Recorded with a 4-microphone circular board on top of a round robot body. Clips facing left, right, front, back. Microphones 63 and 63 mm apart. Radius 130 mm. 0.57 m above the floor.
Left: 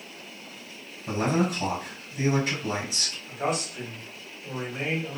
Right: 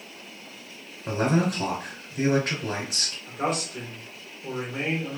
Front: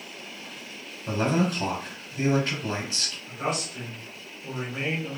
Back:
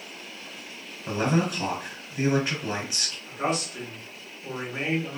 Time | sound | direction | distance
1.1 | a man speaking | 110° right | 2.5 m
3.3 | a man speaking | 120° right | 1.6 m